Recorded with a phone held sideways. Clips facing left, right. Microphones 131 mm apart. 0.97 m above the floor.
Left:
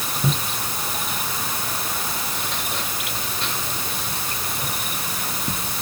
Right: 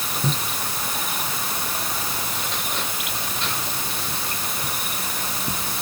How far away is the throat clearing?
I don't hear throat clearing.